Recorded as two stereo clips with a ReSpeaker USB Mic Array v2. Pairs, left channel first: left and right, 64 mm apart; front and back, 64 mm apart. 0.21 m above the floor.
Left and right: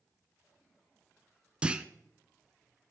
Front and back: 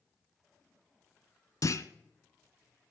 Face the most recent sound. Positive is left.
turn(degrees=-20)